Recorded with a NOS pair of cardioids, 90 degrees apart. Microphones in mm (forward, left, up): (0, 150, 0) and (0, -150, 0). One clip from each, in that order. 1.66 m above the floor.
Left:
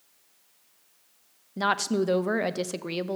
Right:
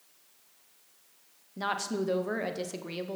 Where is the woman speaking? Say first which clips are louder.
Left 6 dB; 35° left, 0.6 m.